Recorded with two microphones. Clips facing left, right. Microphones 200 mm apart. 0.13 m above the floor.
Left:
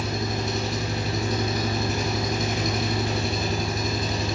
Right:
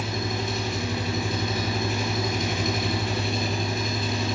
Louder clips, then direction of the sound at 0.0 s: Left 1 dB; 45° left (ahead or behind).